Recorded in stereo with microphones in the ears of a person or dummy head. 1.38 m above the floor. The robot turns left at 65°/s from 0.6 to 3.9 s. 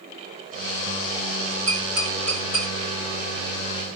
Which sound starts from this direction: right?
Tapping, at 1.7 s.